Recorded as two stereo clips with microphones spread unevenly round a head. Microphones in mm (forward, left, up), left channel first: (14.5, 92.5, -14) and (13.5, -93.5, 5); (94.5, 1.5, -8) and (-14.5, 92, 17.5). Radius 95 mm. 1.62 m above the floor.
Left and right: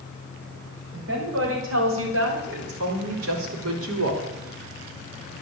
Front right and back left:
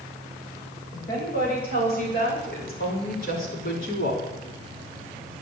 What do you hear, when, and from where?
0.9 s a woman speaking: 85° right, 8.5 m; by 4.3 s 90° right, 3 m